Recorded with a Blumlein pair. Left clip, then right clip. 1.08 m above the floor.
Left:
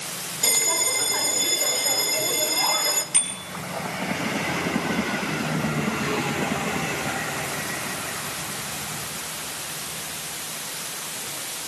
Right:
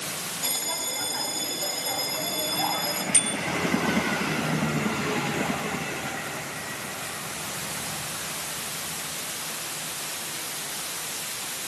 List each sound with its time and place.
0.4 s a bell: 30° left, 2.5 m
3.1 s a bicycle bell: 5° right, 9.5 m